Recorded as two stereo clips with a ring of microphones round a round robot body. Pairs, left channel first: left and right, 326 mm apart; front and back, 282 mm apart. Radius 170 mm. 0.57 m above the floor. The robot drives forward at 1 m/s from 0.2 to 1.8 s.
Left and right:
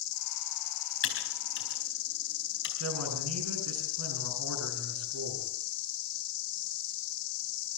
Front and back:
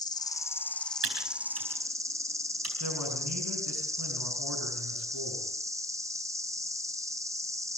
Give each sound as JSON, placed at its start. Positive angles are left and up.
{"t": 0.0, "sound": "an insect", "azimuth_deg": 75, "distance_m": 4.0}
{"t": 1.0, "sound": "typing on a keyboard", "azimuth_deg": 140, "distance_m": 4.5}
{"t": 2.8, "sound": "a man speaking", "azimuth_deg": -135, "distance_m": 7.0}